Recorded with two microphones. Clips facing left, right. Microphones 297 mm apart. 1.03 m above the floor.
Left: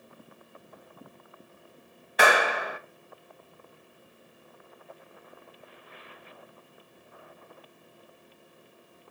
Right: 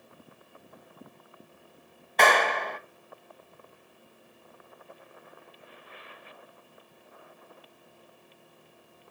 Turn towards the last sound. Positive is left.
turn(degrees=10)  # may be behind; listen again after turning